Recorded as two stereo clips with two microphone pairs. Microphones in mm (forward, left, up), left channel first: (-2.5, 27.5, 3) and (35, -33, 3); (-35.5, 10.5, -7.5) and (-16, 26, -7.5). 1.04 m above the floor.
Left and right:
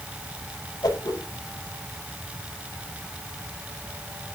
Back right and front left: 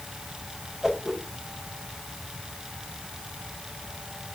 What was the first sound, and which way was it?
A whoosh, 110° left.